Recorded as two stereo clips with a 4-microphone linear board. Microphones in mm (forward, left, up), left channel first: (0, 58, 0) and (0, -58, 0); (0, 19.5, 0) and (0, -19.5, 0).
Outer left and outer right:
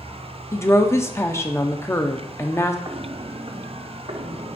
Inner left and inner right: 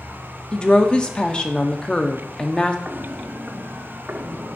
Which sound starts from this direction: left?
A woman speaking, at 0.5 s.